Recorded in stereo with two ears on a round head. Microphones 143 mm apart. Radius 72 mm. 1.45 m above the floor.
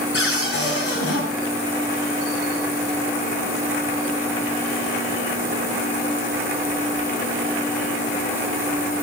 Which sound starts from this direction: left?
A cupboard door, at 0.1 s.